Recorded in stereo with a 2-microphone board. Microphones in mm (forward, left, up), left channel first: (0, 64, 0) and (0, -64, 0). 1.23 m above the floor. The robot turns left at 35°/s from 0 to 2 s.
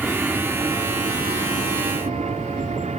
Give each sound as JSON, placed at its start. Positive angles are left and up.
{"t": 0.0, "sound": "an aircraft", "azimuth_deg": 0}